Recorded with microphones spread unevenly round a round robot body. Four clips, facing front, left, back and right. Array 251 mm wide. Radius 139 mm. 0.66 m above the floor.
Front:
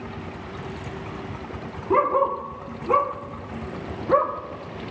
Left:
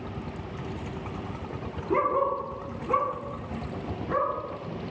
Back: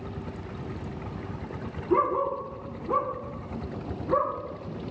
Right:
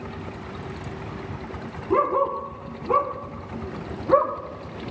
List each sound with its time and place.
1.9 s a dog barking: 5° left, 4 m; by 4.3 s 40° right, 4.5 m